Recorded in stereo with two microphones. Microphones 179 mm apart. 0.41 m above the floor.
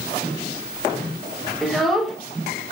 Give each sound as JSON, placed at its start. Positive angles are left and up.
{"t": 1.6, "sound": "a child speaking", "side_deg": 0, "distance_m": 0.6}